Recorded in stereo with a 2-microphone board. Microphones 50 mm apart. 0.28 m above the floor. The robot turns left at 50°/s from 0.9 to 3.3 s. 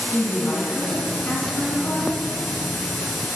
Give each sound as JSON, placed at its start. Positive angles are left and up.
{"t": 0.1, "sound": "a woman speaking", "azimuth_deg": 170, "distance_m": 2.5}